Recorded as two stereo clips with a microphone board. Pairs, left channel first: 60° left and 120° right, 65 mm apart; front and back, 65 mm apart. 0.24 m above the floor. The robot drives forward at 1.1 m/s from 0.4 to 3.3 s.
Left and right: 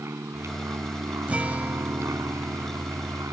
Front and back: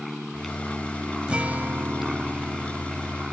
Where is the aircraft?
90° right; by 3.3 s 105° right.